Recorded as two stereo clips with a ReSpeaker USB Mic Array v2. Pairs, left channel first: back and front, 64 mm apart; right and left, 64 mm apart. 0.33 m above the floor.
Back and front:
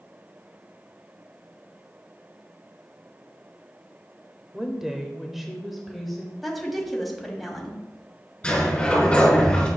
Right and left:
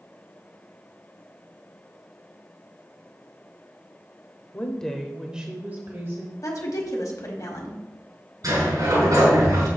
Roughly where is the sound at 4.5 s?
Right.